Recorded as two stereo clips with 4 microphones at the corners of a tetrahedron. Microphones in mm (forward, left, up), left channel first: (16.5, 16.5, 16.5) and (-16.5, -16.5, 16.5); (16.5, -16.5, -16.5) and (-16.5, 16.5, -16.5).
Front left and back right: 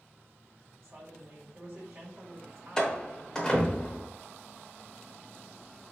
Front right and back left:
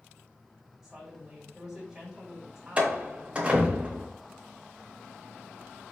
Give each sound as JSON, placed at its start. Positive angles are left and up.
{"t": 0.8, "sound": "a woman speaking", "azimuth_deg": -135, "distance_m": 1.5}
{"t": 2.8, "sound": "a door slam", "azimuth_deg": 105, "distance_m": 0.8}